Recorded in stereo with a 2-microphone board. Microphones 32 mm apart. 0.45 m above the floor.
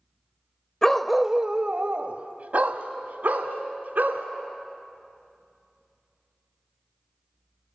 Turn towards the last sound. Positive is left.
turn(degrees=-75)  # may be behind; listen again after turning